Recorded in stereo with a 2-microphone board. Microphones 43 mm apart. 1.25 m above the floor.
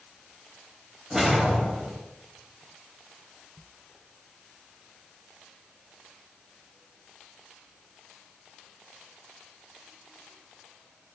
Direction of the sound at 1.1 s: 15° right (ahead or behind).